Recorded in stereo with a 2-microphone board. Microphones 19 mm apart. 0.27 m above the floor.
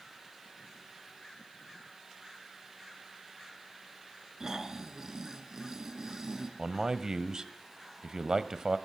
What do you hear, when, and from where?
4.4 s snoring: 20° right (ahead or behind), 3 m
6.6 s a man speaking: 30° right (ahead or behind), 1.2 m